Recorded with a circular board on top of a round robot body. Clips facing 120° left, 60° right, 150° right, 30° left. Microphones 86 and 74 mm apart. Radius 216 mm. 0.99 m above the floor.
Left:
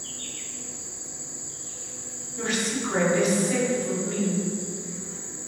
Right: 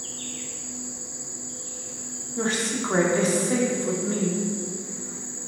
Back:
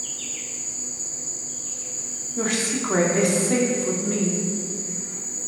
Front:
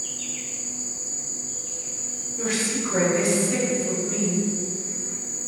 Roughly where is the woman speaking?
Behind right.